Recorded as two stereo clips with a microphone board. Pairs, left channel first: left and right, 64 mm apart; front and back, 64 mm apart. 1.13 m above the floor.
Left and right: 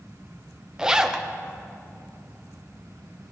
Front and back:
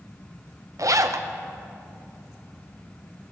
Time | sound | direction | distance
0.8 | a zipper | 165° right | 0.6 m